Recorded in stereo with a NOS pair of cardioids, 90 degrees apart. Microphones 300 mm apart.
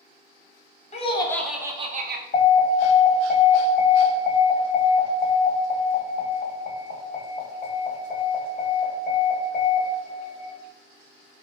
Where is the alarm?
35° left, 1.0 m.